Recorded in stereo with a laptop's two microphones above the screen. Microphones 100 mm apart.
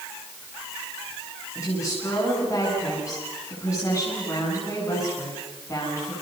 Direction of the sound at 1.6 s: 30° left (ahead or behind).